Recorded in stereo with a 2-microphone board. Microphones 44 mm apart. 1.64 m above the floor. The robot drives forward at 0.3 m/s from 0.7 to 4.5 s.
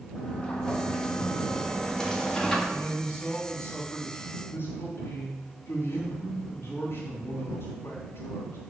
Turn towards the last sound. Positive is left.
turn(degrees=65)  # may be behind; listen again after turning